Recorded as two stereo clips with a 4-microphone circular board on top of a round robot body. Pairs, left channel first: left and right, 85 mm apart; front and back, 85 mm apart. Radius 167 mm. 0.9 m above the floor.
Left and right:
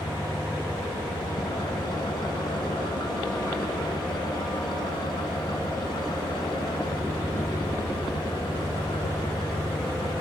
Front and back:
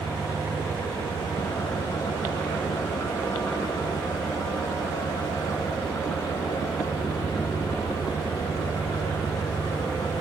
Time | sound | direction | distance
0.0 | an engine running | 50° left | 3 m